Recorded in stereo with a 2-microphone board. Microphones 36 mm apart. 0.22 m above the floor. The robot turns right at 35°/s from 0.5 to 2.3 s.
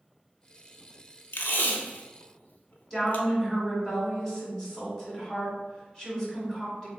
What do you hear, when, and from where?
1.3 s tape being pulled: 70° left (ahead or behind), 0.5 m; by 3.3 s 50° left (ahead or behind), 0.5 m
2.9 s a woman speaking: 15° left (ahead or behind), 1.7 m